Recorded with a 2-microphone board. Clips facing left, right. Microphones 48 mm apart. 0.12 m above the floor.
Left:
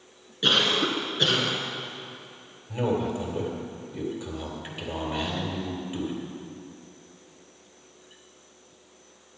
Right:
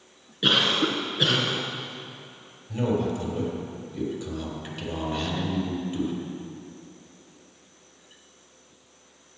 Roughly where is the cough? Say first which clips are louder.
Right 1 dB; centre.